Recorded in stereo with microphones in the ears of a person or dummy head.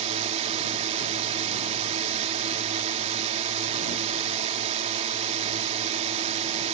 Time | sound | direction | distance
0.0 | a drone | 35° right (ahead or behind) | ?